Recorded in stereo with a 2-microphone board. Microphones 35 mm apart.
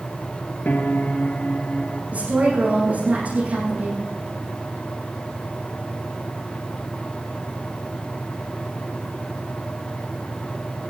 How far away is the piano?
About 1.7 m.